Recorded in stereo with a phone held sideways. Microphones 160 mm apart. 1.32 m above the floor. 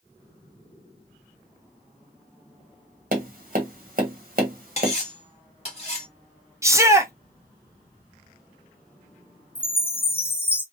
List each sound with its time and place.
3.1 s tapping: 60° right (ahead or behind), 0.9 m
4.8 s cutlery clinking: 40° left (ahead or behind), 1.0 m
6.6 s a shout: 15° right (ahead or behind), 0.5 m
9.6 s a chime: 15° left (ahead or behind), 0.6 m